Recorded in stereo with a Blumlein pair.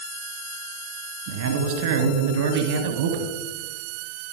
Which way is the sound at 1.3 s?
55° right.